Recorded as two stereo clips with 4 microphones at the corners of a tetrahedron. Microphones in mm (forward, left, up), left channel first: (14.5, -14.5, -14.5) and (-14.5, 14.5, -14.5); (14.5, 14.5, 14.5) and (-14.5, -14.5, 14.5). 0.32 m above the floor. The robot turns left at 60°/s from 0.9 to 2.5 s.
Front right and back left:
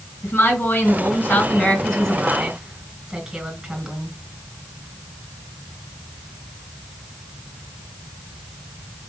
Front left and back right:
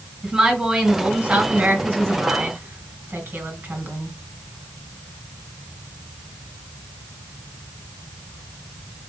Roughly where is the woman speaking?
Ahead right.